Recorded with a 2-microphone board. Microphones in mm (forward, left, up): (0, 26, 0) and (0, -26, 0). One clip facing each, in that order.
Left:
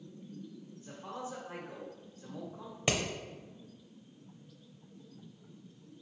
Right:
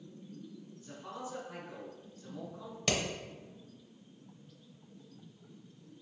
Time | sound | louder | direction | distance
0.8 | a man speaking | left 2 dB | 35° left (ahead or behind) | 1.0 m
2.9 | hammering | left 1 dB | 20° left (ahead or behind) | 0.6 m